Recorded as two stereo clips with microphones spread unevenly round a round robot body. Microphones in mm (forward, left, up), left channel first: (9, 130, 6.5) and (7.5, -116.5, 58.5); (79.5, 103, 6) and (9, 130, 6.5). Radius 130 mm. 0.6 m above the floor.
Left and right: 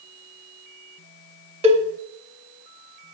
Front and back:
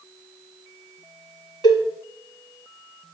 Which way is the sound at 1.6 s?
150° right.